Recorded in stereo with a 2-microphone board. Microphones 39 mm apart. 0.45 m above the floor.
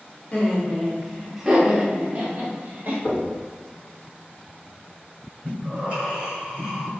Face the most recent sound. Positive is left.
turn(degrees=-25)  # may be behind; listen again after turning